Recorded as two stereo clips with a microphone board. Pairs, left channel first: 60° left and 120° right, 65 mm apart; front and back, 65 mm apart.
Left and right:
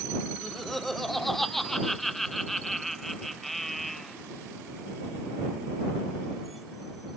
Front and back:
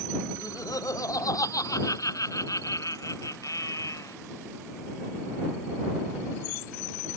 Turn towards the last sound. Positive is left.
turn(degrees=-25)